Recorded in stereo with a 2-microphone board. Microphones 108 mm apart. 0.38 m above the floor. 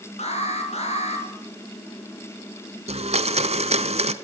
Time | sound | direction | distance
0.2 | an alarm | 80° left | 5.5 m
2.9 | a blender | 75° right (ahead or behind) | 1.0 m